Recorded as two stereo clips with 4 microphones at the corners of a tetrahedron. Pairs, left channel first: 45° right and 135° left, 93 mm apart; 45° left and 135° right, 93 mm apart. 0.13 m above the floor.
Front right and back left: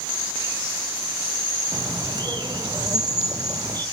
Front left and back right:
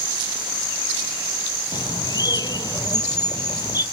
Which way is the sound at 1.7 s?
90° left.